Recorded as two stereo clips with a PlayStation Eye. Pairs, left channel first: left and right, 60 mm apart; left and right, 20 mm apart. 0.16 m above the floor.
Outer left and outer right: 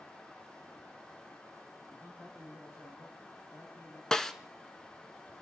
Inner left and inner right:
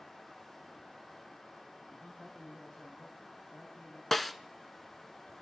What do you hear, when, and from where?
1.9 s a man speaking: 60° left (ahead or behind), 6.5 m
4.1 s a snare drum: 10° left (ahead or behind), 1.1 m